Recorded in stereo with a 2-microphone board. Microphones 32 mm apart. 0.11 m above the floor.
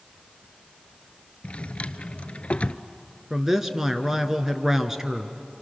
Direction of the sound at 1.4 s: 45° left (ahead or behind).